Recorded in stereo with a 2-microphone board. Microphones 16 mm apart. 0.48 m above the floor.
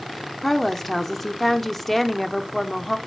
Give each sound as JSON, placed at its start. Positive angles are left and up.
{"t": 0.4, "sound": "a woman speaking", "side_deg": 20, "distance_m": 0.9}